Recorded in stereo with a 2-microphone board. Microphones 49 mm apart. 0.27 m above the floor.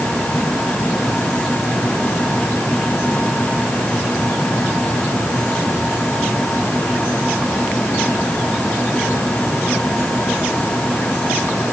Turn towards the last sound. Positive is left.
No sound to turn to.